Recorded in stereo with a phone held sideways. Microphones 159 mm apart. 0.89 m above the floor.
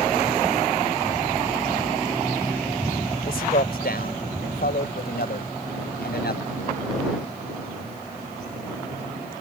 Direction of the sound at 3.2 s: 70° left (ahead or behind).